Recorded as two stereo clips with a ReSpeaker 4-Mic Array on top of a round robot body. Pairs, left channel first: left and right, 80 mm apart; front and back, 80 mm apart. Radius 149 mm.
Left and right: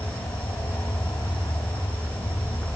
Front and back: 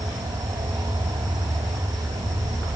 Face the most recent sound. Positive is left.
turn(degrees=160)